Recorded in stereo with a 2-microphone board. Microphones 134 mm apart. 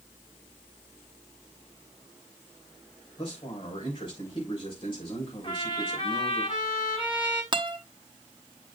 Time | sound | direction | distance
3.2 | a man speaking | 40° left (ahead or behind) | 3 m
5.4 | a trumpet | 40° left (ahead or behind) | 3.5 m
7.5 | a guitar | 35° right (ahead or behind) | 1.0 m